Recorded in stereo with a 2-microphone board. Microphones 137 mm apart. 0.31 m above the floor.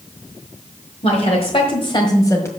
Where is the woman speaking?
45° left (ahead or behind), 1.6 m; by 2.5 s 20° left (ahead or behind), 1.7 m.